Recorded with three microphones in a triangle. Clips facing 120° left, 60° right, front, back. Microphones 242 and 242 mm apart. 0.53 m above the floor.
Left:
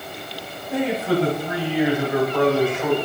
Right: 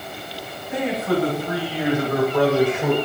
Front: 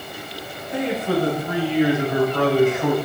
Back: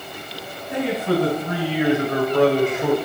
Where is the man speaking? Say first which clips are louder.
Left 1 dB, back 1 dB; 175° left, 3.5 m; by 3.0 s 120° right, 2 m.